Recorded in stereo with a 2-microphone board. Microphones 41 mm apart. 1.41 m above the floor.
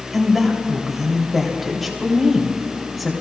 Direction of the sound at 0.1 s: Centre (ahead or behind).